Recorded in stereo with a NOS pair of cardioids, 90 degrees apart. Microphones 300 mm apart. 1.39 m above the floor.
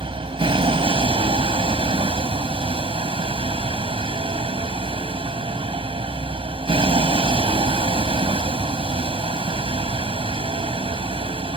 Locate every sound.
0.0 s a vehicle: 20° right